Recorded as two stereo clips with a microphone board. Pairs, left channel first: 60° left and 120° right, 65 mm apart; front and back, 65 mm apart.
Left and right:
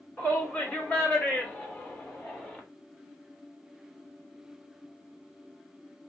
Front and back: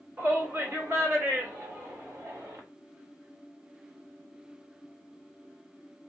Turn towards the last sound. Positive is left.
turn(degrees=140)